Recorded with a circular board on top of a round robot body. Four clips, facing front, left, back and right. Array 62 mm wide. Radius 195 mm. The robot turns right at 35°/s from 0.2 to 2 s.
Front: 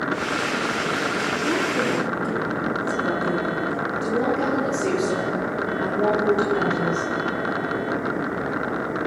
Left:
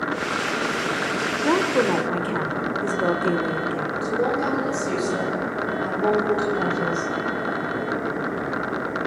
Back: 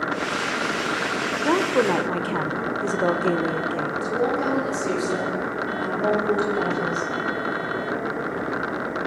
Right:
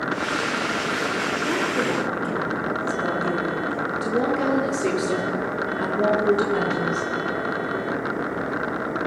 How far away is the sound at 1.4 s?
About 1.8 m.